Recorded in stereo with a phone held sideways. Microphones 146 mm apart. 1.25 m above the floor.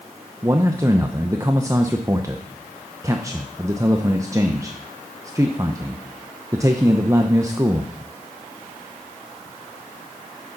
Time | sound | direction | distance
0.4 | a man speaking | 20° right (ahead or behind) | 0.7 m